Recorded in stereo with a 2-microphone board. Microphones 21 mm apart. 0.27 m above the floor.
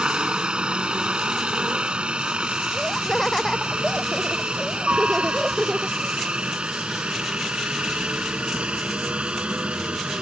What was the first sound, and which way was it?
A helicopter, 55° right (ahead or behind).